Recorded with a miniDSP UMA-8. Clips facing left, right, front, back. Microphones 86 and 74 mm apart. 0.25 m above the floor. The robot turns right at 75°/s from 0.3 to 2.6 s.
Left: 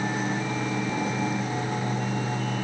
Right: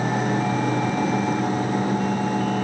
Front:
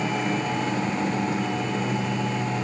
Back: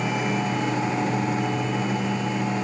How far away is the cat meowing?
No cat meowing in this recording.